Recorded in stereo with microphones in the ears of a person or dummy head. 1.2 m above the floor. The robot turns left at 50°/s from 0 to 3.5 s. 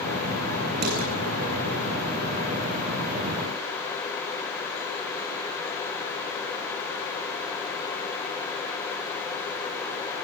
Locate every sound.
0.8 s dishes clattering: 55° right (ahead or behind), 7.5 m; by 1.1 s 45° right (ahead or behind), 7.5 m